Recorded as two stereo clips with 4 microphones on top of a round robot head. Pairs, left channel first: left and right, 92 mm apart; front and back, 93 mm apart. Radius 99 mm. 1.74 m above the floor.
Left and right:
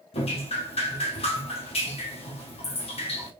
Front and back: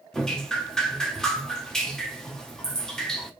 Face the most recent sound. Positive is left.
turn(degrees=85)